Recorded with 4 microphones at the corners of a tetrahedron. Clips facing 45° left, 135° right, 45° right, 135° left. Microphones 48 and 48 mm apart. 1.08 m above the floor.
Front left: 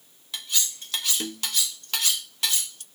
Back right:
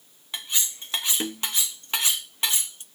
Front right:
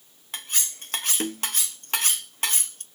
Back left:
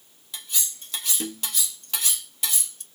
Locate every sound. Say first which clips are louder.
0.3 s cutlery clinking: even, front right 2 dB; 75° right, 0.6 m